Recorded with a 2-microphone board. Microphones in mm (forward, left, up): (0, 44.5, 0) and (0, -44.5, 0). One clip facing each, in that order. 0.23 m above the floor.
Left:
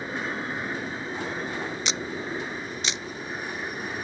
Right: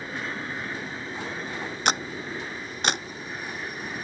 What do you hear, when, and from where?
0.0 s an aircraft: 15° left (ahead or behind)
1.9 s a camera shutter: 55° right (ahead or behind)